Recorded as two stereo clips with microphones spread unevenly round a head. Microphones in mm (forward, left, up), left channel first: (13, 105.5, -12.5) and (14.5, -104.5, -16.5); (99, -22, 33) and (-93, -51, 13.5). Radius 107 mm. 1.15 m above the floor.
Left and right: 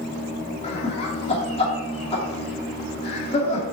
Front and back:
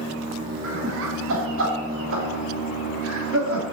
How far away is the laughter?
About 2 m.